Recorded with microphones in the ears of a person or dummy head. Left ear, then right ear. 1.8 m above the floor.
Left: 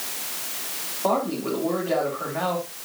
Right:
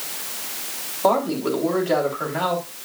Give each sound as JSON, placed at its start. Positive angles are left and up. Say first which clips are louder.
{"t": 1.0, "sound": "a man speaking", "louder": "right 4 dB", "side_deg": -80, "distance_m": 3.5}